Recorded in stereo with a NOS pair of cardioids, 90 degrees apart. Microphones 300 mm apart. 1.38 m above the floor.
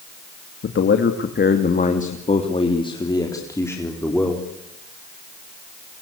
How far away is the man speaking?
About 2.5 m.